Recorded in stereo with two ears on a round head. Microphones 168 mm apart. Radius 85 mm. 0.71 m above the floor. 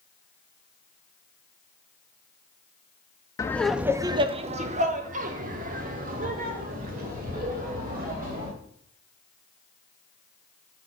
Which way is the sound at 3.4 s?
15° left (ahead or behind).